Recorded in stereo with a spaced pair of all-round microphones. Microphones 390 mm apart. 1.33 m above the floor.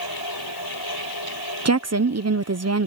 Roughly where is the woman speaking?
Right.